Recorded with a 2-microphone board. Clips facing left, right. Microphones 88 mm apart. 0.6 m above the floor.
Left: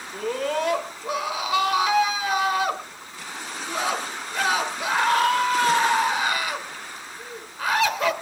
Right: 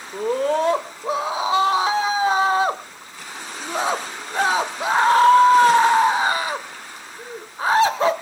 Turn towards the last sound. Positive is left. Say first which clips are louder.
# right 5 dB
turn(degrees=-30)  # may be behind; listen again after turning